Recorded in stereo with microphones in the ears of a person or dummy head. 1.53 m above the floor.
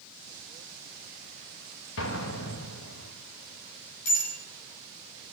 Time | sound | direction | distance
2.0 | an explosion | 80° left | 1.8 m
4.0 | a bicycle bell | 45° left (ahead or behind) | 5.5 m